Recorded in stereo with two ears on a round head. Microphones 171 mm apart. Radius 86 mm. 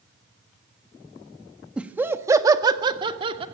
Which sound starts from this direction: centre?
Laughter, at 1.8 s.